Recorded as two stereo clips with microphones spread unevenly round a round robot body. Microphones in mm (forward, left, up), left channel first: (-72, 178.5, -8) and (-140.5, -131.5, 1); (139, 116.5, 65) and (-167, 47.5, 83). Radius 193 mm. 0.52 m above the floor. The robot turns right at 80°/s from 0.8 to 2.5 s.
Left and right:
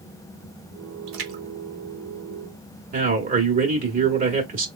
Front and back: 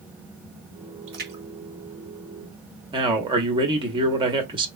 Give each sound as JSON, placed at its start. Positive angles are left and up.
{"t": 1.1, "sound": "a splash", "azimuth_deg": -115, "distance_m": 0.9}
{"t": 2.9, "sound": "a man speaking", "azimuth_deg": -105, "distance_m": 1.0}